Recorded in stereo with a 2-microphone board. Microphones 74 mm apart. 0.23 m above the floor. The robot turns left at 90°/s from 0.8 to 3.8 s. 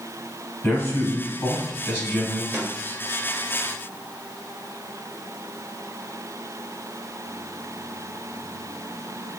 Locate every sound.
0.6 s a man speaking: 140° left, 1.6 m; by 2.4 s 10° right, 1.6 m
2.5 s a snare drum: 30° right (ahead or behind), 1.5 m; by 2.7 s 15° right (ahead or behind), 1.5 m